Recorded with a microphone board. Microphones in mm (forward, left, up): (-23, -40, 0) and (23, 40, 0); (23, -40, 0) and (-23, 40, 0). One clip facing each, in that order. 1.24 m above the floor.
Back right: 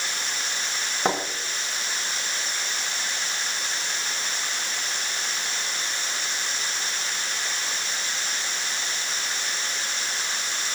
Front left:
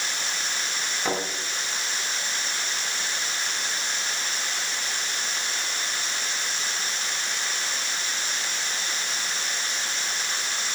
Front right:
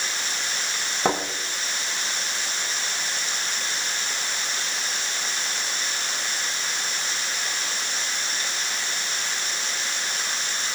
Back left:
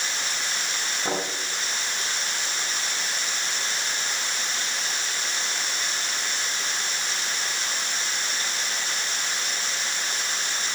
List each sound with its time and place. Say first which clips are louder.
1.1 s a thud: back right 3 dB, front right 5 dB; 75° right, 6.5 m